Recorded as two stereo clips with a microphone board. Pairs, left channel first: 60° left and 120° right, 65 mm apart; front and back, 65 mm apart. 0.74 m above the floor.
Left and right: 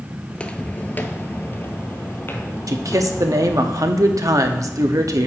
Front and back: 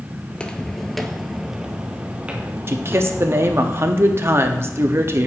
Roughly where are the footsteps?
Ahead.